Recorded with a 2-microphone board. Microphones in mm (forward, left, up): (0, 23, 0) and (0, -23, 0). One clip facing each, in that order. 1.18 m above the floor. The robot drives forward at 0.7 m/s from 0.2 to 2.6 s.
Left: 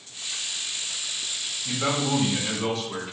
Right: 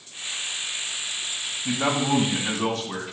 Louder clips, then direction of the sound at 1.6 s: Right 3 dB; 75° right (ahead or behind).